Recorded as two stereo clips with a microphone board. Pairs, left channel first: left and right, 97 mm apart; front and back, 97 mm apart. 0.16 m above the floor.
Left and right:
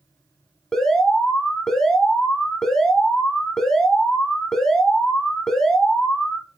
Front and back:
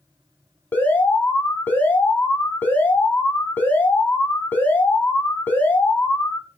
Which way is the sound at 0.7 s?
15° left.